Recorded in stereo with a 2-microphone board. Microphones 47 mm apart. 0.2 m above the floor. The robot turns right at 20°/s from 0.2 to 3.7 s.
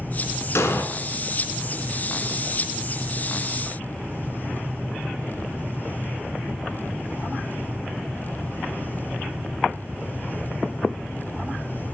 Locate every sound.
0.6 s an explosion: 65° left (ahead or behind), 0.6 m